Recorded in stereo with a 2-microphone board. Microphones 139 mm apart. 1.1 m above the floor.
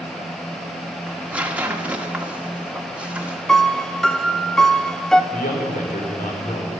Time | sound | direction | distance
1.1 | tearing paper | 10° right (ahead or behind) | 1.4 m
3.5 | a piano | 5° left (ahead or behind) | 0.8 m
5.3 | a man speaking | 80° left | 3.5 m